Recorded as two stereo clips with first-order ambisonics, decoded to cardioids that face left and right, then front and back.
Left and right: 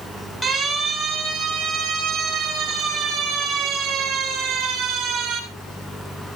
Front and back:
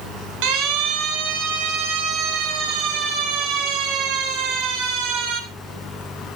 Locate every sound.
0.4 s a siren: 175° right, 7 m; by 5.4 s 160° right, 13 m